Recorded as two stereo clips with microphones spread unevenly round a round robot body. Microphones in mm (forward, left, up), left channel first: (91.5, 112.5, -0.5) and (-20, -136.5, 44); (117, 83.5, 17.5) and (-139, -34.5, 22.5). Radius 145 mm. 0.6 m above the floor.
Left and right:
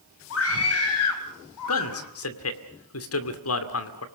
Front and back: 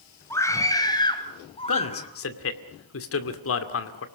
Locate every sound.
0.3 s a scream: 105° left, 4 m; by 2.1 s 90° left, 4 m
1.7 s a man speaking: 55° left, 2.5 m